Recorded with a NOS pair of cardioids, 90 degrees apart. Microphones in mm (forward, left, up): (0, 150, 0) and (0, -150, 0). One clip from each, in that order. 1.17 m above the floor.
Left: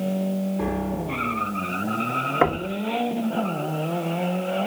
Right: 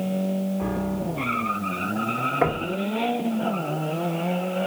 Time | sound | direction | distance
0.6 | a piano | 70° left | 3 m
2.4 | knocking | 40° left | 1.5 m